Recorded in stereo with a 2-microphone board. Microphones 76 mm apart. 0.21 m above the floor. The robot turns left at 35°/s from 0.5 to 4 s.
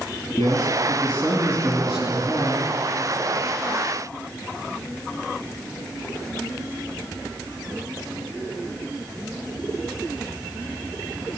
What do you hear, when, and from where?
0.4 s a man speaking: 55° left, 3 m; by 2.7 s 25° right, 3 m